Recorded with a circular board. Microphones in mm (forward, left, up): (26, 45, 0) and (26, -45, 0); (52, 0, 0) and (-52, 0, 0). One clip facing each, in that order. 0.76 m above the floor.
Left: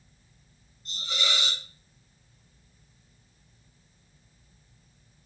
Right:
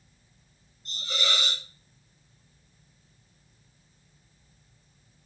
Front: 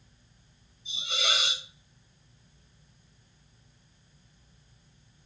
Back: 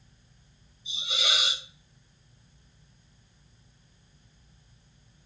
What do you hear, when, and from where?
0.8 s a hiss: 15° left, 2 m